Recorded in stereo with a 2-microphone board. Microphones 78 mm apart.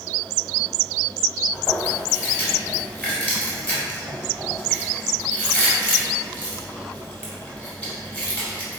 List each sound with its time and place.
1.5 s chewing: 20° left (ahead or behind), 2.0 m